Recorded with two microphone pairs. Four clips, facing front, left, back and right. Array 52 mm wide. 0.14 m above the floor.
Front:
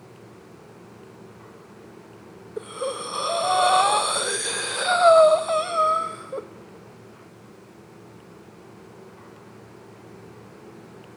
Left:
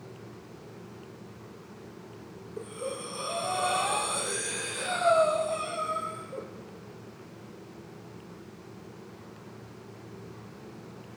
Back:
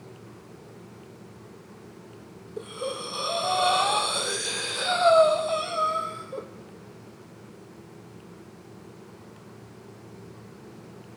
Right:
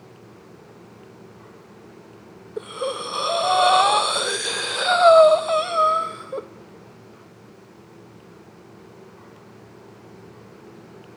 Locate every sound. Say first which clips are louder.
2.6 s breathing: right 9 dB, front 3 dB; 65° right, 1.4 m